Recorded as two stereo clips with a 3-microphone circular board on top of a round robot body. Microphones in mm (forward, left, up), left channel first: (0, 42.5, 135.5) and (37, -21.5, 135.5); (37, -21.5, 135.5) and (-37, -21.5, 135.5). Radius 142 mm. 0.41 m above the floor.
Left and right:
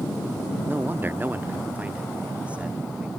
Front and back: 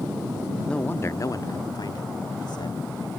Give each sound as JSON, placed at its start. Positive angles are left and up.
{"t": 0.7, "sound": "a man speaking", "azimuth_deg": -70}